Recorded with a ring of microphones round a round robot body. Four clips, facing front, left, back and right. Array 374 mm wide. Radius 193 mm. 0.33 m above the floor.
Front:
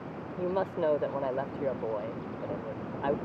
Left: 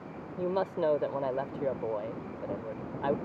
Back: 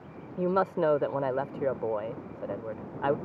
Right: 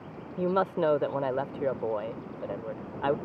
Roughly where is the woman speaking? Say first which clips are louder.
Right 3 dB, back 4 dB; behind right.